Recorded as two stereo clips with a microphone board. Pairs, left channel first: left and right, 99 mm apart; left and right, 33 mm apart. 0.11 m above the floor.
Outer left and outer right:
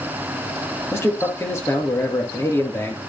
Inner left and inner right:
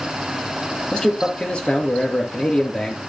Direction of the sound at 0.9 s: 30° left (ahead or behind).